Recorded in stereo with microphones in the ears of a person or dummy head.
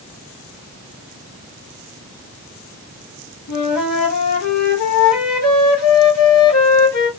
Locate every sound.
3.5 s a flute: 80° left, 1.1 m